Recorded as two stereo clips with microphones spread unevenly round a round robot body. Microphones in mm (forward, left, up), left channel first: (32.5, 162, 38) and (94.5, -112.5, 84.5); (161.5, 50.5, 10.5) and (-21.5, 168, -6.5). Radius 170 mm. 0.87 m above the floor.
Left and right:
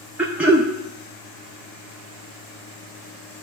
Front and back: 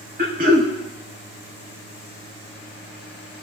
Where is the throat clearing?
170° right, 0.6 m.